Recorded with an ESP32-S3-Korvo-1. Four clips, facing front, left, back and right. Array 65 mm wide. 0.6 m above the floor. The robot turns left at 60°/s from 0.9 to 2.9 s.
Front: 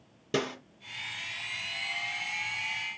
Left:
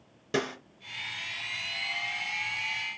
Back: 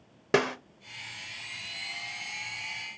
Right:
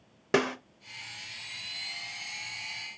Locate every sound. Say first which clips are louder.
0.3 s a snare drum: right 4 dB, back 5 dB; 145° right, 0.5 m